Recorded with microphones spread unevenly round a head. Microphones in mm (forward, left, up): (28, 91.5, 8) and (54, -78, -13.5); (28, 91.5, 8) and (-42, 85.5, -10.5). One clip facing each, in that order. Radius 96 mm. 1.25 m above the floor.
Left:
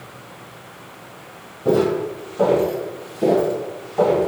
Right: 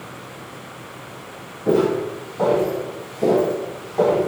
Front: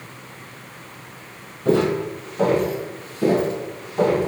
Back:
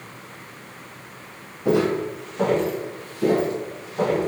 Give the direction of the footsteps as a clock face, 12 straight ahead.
9 o'clock.